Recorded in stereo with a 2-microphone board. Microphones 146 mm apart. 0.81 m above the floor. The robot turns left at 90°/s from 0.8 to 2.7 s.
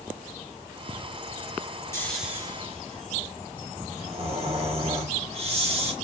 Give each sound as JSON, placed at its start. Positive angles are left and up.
{"t": 1.9, "sound": "snoring", "azimuth_deg": 20, "distance_m": 1.7}